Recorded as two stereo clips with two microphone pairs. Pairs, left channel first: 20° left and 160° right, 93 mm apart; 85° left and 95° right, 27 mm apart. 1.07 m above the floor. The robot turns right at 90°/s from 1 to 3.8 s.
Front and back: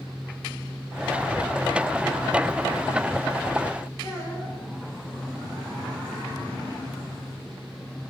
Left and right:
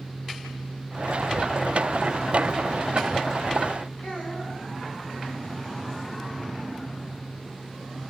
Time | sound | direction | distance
4.0 | a child speaking | 75° left | 7 m